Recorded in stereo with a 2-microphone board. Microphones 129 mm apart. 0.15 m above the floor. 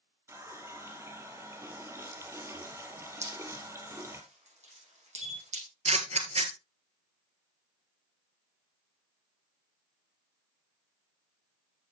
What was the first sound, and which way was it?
A running tap, 20° right (ahead or behind).